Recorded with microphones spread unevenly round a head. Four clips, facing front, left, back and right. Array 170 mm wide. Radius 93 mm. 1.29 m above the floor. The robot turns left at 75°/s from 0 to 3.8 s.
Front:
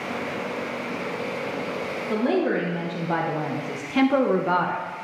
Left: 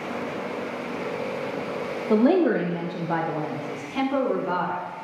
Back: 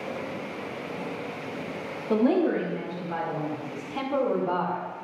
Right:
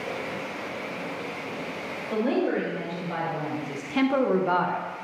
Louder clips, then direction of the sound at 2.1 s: Left 6 dB, back 1 dB; 105° left.